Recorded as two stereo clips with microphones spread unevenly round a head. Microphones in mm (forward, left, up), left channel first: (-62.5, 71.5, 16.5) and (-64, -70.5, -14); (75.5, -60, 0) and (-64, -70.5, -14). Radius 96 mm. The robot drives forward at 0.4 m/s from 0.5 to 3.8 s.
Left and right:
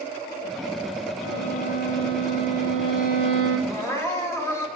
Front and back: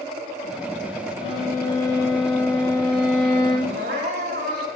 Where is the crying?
155° left, 3 m.